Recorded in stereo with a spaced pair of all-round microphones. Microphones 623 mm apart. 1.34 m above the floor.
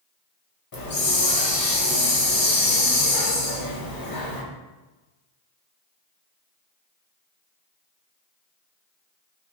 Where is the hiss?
35° left (ahead or behind), 0.7 m.